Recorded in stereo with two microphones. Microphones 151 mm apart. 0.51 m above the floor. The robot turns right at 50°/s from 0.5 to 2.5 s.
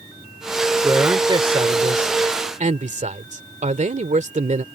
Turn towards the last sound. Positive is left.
turn(degrees=-80)